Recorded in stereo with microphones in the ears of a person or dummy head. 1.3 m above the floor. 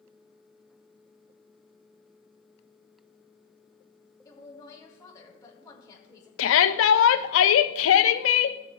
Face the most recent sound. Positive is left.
turn(degrees=90)